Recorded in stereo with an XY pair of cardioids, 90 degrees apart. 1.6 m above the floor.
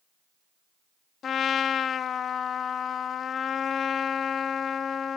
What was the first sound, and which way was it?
A trumpet, 60° left.